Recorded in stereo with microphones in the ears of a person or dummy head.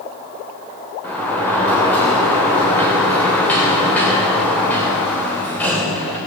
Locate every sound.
1.0 s a sliding door: 10° left (ahead or behind), 3 m